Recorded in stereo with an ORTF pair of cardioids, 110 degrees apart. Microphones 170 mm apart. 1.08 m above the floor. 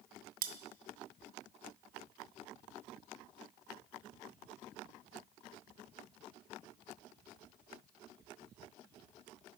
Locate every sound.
0.4 s cutlery clinking: 60° right, 0.5 m